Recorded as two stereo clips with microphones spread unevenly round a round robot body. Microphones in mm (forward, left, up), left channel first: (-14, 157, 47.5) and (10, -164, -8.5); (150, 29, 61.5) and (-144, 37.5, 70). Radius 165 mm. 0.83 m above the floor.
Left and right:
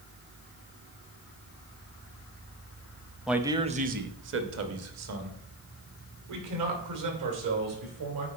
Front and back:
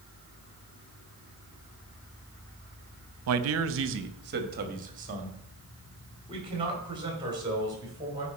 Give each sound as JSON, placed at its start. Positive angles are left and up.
{"t": 3.3, "sound": "a man speaking", "azimuth_deg": -170, "distance_m": 0.7}